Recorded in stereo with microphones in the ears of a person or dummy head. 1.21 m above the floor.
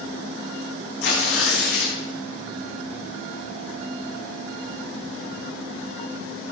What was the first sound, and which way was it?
Tearing paper, 80° left.